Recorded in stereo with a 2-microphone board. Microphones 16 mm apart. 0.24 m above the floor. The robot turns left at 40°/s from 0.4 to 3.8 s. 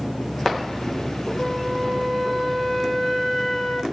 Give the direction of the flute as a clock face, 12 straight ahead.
8 o'clock.